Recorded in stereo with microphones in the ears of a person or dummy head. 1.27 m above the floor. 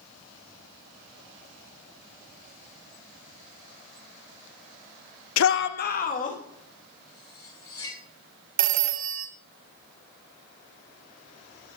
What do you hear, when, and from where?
5.4 s a shout: 80° left, 0.7 m; by 6.4 s 40° left (ahead or behind), 2.0 m
7.1 s cutlery clinking: 20° left (ahead or behind), 6.5 m
8.6 s a phone ringing: 40° right (ahead or behind), 0.7 m